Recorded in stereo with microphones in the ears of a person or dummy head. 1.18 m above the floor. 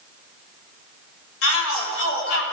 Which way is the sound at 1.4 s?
80° left.